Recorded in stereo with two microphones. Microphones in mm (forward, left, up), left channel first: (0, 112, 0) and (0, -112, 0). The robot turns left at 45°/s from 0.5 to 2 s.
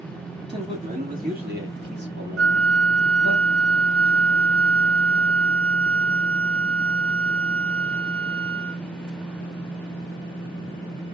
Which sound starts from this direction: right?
A flute, at 2.4 s.